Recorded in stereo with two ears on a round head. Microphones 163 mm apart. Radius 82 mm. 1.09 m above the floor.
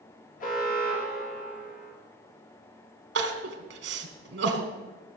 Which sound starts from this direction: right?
Crying, at 3.1 s.